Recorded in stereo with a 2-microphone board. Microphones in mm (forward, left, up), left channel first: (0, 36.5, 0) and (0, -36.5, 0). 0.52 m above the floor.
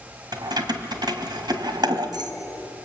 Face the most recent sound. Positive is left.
turn(degrees=-75)  # may be behind; listen again after turning